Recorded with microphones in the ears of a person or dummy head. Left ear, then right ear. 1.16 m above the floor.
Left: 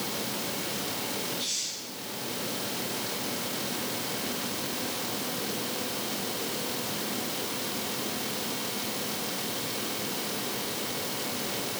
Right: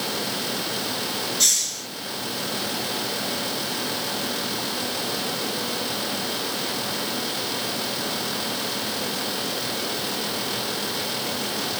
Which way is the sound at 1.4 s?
60° right (ahead or behind).